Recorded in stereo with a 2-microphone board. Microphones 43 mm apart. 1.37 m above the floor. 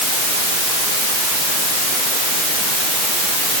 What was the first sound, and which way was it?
Only background noise.